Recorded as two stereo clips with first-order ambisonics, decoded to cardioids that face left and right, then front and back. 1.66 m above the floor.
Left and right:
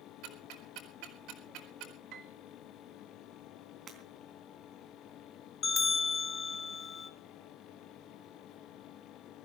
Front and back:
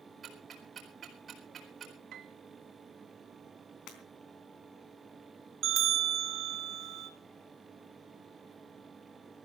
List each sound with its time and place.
0.2 s ticking: 115° right, 4 m
2.1 s a piano: 135° right, 1.3 m
3.9 s breaking glass: 30° right, 3.5 m
5.6 s a bell: 145° left, 1.4 m